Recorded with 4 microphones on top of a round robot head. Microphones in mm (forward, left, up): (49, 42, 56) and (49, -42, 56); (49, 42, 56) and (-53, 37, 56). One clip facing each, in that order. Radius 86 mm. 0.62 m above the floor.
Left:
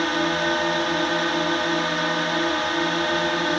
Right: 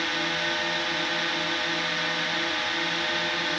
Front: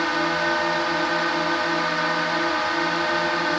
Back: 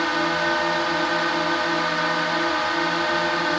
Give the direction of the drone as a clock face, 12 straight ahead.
9 o'clock.